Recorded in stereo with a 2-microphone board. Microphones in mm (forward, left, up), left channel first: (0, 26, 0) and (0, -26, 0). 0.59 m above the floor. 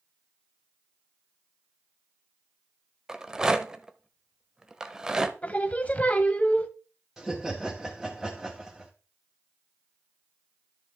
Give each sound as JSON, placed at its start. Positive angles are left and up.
{"t": 3.1, "sound": "a rattle", "side_deg": -15, "distance_m": 0.7}
{"t": 5.4, "sound": "singing", "side_deg": 30, "distance_m": 0.8}
{"t": 7.2, "sound": "laughter", "side_deg": -5, "distance_m": 1.5}